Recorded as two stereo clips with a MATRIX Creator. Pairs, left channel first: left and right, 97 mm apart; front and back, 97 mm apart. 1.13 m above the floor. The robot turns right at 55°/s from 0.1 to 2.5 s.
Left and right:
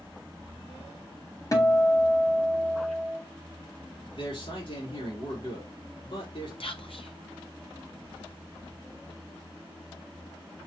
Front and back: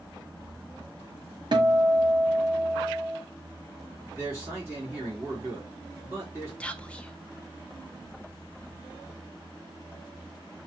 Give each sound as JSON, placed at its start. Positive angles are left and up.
{"t": 1.5, "sound": "a guitar", "azimuth_deg": 145, "distance_m": 1.0}
{"t": 4.1, "sound": "a man speaking", "azimuth_deg": 115, "distance_m": 3.0}
{"t": 6.6, "sound": "whispering", "azimuth_deg": 80, "distance_m": 0.7}